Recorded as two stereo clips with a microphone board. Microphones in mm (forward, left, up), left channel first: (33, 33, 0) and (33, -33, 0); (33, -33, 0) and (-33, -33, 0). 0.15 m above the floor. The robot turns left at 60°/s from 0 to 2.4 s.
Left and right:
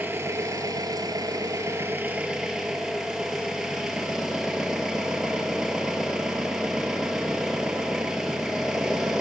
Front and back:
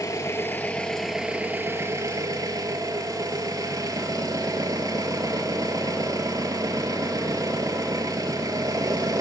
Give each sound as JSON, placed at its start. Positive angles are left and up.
{"t": 0.0, "sound": "an engine running", "azimuth_deg": -30, "distance_m": 0.8}